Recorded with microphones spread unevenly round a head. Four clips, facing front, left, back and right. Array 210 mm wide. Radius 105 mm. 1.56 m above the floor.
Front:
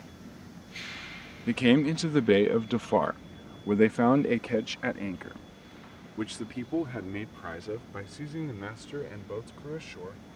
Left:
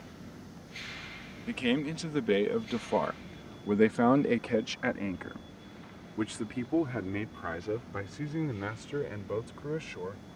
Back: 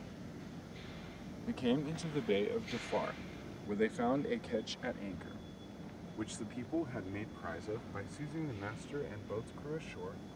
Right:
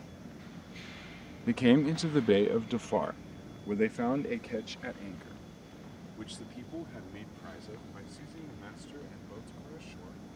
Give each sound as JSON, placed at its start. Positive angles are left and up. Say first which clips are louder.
{"t": 1.5, "sound": "a man speaking", "louder": "right 6 dB, front 12 dB", "azimuth_deg": -30}